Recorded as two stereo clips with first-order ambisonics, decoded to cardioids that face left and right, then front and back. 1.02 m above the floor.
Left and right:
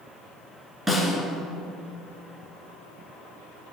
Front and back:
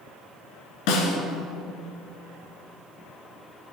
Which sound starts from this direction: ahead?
A snare drum, at 0.9 s.